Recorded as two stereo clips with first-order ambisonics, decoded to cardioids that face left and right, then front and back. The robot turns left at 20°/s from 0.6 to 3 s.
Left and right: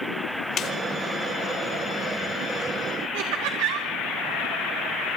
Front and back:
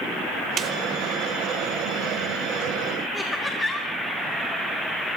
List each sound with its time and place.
0.6 s a snare drum: 130° left, 1.6 m
3.1 s laughter: 80° right, 1.7 m